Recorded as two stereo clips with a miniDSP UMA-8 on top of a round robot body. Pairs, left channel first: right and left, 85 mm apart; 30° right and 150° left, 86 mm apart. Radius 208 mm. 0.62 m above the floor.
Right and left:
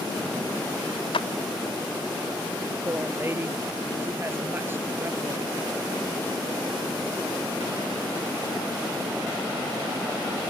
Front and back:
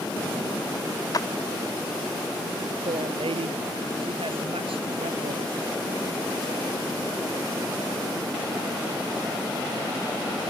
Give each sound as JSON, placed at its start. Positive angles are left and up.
{"t": 1.1, "sound": "a clap", "azimuth_deg": -80}
{"t": 2.9, "sound": "a woman speaking", "azimuth_deg": 155}